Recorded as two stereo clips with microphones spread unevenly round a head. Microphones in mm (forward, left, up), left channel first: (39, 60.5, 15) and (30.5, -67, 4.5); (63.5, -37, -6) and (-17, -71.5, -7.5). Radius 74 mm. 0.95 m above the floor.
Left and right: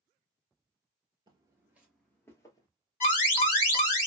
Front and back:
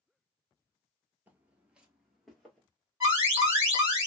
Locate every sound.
1.3 s footsteps: 115° right, 1.0 m; by 2.7 s 100° left, 1.1 m
3.0 s an alarm: 120° left, 1.7 m